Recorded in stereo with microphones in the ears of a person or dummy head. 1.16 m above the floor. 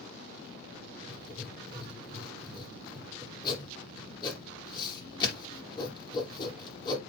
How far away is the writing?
About 3 m.